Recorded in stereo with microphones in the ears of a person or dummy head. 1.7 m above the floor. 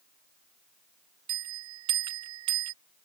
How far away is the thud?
I don't hear a thud.